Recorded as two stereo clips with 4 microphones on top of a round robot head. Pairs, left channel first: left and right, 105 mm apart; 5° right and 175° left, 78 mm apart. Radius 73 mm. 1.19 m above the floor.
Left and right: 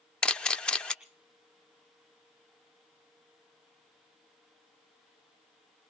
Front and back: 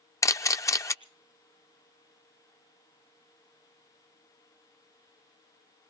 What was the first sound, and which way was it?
A camera shutter, 15° left.